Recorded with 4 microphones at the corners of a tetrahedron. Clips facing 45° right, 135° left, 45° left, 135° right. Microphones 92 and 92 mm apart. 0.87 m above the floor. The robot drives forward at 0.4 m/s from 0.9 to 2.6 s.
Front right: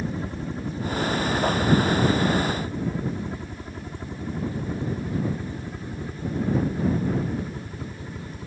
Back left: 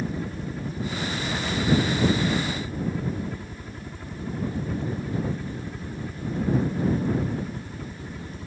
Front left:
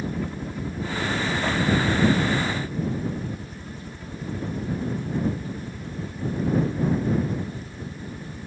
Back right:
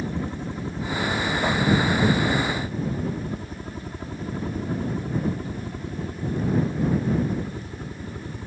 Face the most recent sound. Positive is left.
turn(degrees=-120)